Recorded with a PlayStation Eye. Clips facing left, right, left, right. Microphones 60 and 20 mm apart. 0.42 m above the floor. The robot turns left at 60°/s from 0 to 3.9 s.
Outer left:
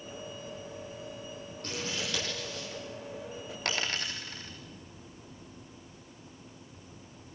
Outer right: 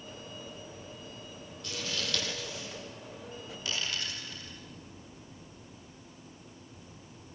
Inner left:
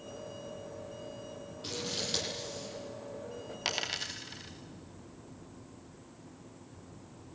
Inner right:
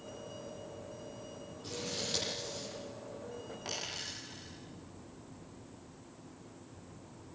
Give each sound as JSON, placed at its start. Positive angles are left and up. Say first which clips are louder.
{"t": 1.6, "sound": "scissors", "louder": "outer left 1 dB, inner left 3 dB", "side_deg": 45, "distance_m": 10.0}
{"t": 3.6, "sound": "a dropped coin", "louder": "outer left 3 dB, inner left 6 dB", "side_deg": 60, "distance_m": 4.0}